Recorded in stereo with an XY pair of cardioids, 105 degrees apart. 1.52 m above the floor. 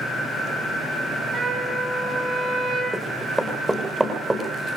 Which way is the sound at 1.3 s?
45° right.